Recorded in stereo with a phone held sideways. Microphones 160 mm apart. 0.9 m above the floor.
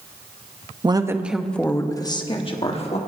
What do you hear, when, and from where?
0.8 s a woman speaking: 30° right (ahead or behind), 0.7 m; by 3.0 s 40° left (ahead or behind), 1.5 m